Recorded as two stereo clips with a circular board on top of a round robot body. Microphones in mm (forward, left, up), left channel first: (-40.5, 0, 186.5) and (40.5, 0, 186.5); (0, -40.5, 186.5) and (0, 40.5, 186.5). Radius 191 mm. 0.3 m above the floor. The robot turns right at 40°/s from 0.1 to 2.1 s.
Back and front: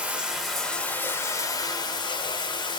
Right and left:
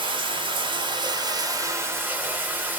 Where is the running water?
75° left, 1.0 m; by 2.8 s 155° left, 1.0 m.